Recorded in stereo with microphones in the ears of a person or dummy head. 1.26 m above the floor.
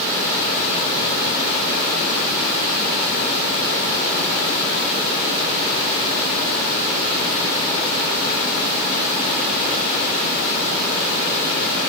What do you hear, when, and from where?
Only background noise.